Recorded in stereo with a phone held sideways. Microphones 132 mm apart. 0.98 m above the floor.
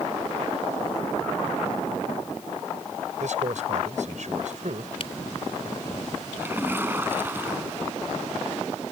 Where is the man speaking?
65° right (ahead or behind).